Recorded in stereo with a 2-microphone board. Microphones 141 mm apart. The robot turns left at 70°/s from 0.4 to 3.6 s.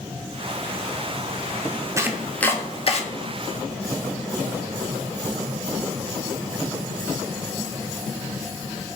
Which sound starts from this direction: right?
Chopping, at 2.0 s.